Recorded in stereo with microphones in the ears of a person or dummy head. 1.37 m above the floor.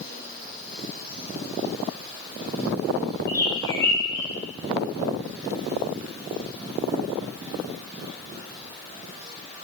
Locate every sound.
3.3 s a bird: 15° left (ahead or behind), 1.6 m